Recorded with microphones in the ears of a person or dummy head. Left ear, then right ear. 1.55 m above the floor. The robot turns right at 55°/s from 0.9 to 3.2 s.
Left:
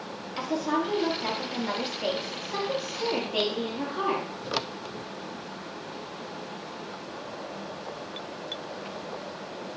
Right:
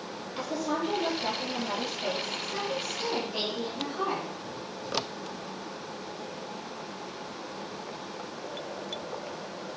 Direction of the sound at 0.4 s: 10° left.